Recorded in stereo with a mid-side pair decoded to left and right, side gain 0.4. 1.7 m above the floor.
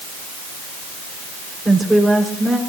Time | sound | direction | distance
1.6 | a woman speaking | 10° right | 6.5 m